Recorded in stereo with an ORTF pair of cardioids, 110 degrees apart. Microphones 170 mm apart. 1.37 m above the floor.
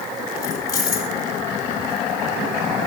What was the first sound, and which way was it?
Keys jangling, 20° left.